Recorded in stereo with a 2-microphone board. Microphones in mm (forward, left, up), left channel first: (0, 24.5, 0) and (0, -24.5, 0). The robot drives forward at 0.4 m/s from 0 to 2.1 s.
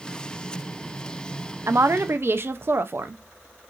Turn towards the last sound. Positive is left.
turn(degrees=-50)  # may be behind; listen again after turning